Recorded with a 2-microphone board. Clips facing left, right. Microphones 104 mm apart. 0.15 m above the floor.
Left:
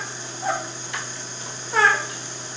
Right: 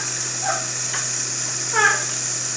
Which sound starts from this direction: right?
Running water, at 0.0 s.